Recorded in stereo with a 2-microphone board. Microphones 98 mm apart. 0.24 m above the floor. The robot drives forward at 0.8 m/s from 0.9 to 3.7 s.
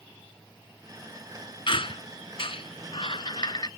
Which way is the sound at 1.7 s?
60° left (ahead or behind).